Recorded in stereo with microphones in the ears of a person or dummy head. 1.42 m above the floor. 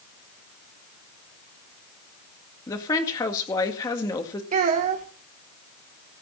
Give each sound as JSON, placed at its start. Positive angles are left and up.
{"t": 2.7, "sound": "a woman speaking", "side_deg": 20, "distance_m": 2.0}
{"t": 4.5, "sound": "a child speaking", "side_deg": -35, "distance_m": 1.0}